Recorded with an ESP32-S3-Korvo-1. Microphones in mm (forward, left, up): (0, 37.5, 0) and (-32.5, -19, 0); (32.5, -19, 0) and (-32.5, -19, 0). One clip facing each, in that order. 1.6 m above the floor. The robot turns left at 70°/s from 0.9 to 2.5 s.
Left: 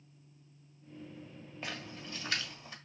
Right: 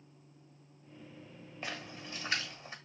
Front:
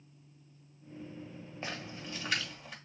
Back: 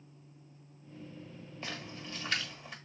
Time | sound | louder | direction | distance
1.6 | a splash | right 1 dB, front 1 dB | 30° right | 1.6 m